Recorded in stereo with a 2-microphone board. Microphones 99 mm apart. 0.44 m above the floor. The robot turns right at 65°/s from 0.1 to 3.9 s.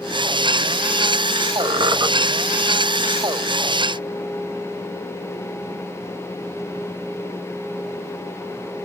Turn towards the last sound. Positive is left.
turn(degrees=75)